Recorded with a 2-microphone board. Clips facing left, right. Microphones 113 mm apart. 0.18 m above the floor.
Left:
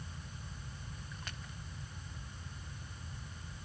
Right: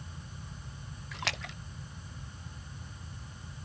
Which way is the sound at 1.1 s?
85° right.